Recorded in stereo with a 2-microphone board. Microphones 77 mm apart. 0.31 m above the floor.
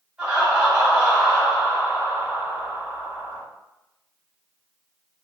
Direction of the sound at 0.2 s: 10° right (ahead or behind).